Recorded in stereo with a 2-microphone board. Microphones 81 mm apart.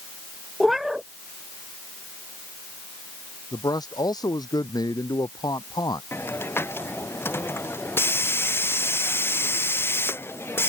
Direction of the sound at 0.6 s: 5° right (ahead or behind).